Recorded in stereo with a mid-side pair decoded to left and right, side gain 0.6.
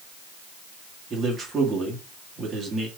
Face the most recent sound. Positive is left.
turn(degrees=-30)